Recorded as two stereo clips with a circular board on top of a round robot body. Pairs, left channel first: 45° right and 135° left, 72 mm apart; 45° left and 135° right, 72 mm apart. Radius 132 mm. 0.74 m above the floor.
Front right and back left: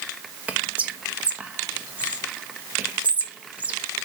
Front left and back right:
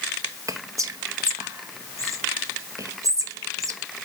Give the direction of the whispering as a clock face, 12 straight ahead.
5 o'clock.